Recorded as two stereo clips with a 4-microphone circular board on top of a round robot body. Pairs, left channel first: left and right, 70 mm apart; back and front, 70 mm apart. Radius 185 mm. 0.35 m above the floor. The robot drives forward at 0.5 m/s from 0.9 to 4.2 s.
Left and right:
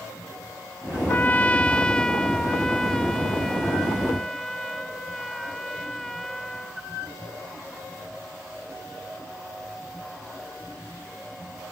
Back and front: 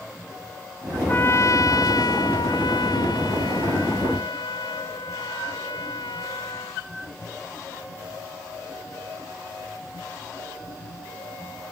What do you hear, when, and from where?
1.1 s a trumpet: 135° left; by 6.8 s 175° left